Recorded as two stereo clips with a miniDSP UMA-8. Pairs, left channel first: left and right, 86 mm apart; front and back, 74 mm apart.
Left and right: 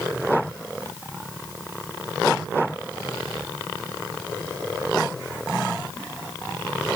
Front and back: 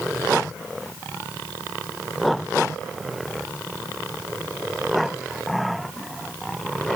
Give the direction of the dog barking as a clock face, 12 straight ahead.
I don't hear a dog barking.